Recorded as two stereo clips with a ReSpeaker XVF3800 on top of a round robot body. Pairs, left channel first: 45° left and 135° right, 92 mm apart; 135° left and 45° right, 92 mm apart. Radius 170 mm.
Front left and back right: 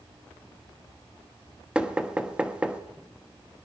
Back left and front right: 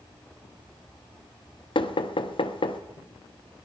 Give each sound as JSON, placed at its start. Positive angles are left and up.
{"t": 1.8, "sound": "knocking", "azimuth_deg": 145, "distance_m": 1.4}